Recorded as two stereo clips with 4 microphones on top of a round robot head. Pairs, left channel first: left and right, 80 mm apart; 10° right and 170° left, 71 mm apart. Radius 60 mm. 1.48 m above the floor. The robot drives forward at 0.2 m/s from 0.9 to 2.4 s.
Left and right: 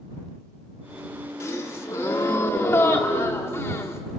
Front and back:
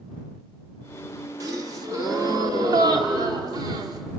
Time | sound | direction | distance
1.4 | a gasp | 140° left | 1.8 m